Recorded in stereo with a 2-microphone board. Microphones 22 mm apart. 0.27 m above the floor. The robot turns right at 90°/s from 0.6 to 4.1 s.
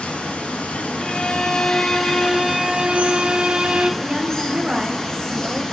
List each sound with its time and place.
0.0 s running water: 70° left, 1.3 m; by 5.7 s 25° left, 1.3 m
1.0 s a violin: 45° left, 0.8 m; by 3.9 s 55° right, 0.8 m
4.0 s a woman speaking: 25° right (ahead or behind), 0.9 m